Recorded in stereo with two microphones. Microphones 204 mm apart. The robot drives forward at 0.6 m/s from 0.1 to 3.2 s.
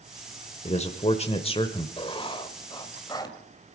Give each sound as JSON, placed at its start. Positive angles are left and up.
{"t": 0.7, "sound": "a man speaking", "side_deg": 35, "distance_m": 0.9}
{"t": 2.0, "sound": "writing", "side_deg": 30, "distance_m": 1.2}